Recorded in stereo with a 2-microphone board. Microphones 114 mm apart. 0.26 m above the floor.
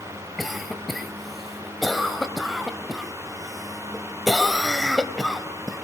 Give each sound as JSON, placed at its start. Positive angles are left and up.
{"t": 0.4, "sound": "a cough", "side_deg": 0, "distance_m": 1.1}